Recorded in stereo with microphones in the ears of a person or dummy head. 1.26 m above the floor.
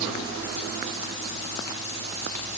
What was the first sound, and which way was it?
Only background noise.